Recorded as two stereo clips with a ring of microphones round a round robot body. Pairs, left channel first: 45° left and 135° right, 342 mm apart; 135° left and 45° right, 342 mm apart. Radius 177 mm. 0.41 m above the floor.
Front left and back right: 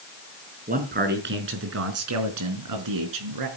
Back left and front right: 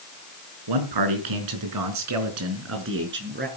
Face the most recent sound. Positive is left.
turn(degrees=-110)